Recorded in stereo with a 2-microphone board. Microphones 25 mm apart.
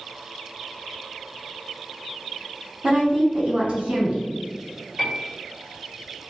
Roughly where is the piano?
Right.